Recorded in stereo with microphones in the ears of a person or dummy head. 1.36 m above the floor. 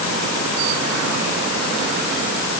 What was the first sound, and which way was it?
Only background noise.